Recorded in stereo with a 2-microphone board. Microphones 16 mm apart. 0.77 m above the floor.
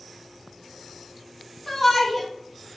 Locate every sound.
1.7 s a shout: 20° left (ahead or behind), 0.6 m